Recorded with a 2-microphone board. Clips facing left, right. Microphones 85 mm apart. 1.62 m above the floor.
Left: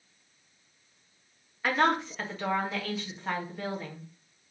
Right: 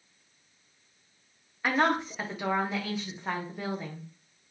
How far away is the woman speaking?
About 1.3 m.